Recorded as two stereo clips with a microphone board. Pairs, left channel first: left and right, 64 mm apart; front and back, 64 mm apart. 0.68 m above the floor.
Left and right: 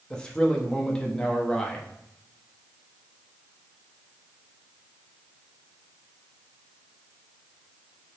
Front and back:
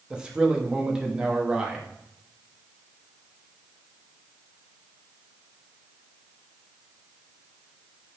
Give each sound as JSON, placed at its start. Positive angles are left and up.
{"t": 0.1, "sound": "a man speaking", "azimuth_deg": 135, "distance_m": 0.6}